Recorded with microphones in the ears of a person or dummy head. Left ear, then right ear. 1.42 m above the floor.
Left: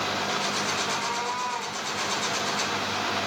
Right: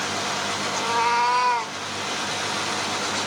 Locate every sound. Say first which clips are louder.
0.8 s a cat meowing: right 7 dB; 40° right (ahead or behind), 1.2 m; by 1.8 s 45° right (ahead or behind), 1.5 m